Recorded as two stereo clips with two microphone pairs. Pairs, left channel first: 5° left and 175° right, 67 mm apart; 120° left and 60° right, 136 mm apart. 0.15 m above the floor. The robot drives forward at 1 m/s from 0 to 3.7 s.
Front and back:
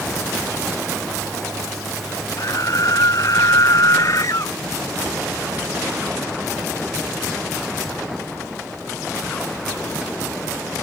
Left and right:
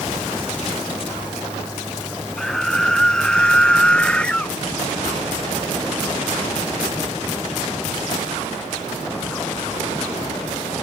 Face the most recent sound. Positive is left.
turn(degrees=40)